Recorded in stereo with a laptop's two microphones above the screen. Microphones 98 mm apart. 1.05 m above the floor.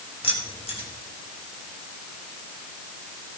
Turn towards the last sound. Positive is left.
turn(degrees=85)